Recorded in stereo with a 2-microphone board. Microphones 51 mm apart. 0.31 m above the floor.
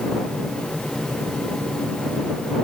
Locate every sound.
Only background noise.